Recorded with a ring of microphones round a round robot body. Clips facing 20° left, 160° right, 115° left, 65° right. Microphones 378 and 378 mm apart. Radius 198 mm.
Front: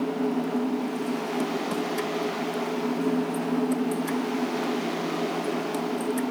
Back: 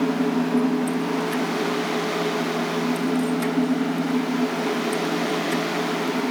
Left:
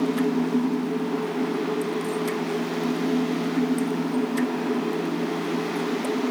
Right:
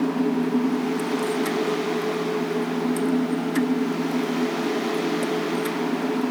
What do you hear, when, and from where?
Only background noise.